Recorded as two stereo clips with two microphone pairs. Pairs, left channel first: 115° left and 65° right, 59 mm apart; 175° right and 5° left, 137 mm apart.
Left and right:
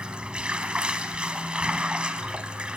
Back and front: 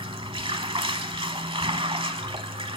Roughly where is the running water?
Ahead.